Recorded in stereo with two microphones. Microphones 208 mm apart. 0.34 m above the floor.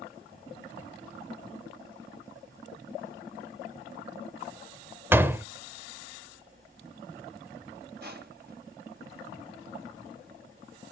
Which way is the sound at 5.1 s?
10° right (ahead or behind).